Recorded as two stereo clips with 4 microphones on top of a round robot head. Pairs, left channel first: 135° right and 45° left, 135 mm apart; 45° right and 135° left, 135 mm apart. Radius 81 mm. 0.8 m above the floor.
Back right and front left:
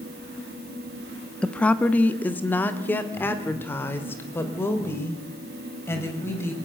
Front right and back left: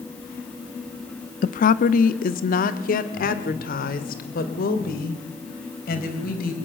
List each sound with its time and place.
1.4 s a woman speaking: 50° right, 0.8 m; by 6.5 s 60° right, 4 m